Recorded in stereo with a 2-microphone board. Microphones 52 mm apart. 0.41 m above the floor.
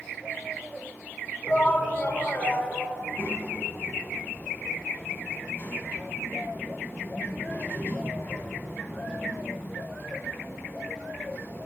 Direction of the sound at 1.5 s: 30° left (ahead or behind).